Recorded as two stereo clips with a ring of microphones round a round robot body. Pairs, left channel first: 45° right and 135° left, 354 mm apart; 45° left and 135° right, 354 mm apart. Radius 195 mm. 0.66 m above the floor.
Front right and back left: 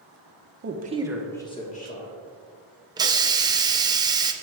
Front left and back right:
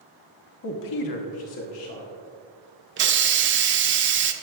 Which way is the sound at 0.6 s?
85° left.